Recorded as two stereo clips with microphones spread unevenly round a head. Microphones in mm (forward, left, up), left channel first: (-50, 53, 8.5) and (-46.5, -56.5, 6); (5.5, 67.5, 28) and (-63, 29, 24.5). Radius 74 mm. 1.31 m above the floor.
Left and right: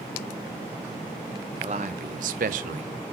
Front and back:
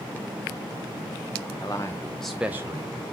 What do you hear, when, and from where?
1.6 s a man speaking: 35° right, 0.9 m; by 2.9 s 90° right, 0.7 m